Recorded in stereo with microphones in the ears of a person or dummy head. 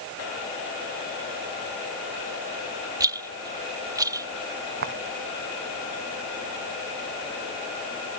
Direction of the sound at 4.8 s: 50° right (ahead or behind).